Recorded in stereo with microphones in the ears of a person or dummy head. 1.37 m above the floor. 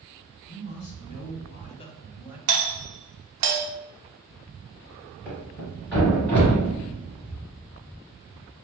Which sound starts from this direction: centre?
A thud, at 5.2 s.